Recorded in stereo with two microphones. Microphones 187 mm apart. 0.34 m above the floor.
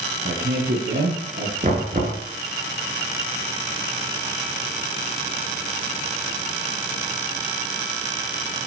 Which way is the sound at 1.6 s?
45° right (ahead or behind).